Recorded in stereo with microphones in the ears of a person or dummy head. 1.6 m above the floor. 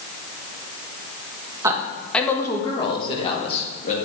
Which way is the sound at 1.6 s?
20° right (ahead or behind).